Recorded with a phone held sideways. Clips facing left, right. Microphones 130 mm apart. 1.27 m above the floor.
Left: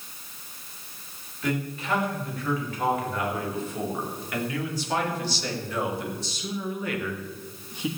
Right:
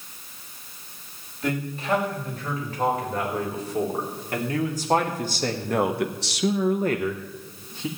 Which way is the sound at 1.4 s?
35° right (ahead or behind).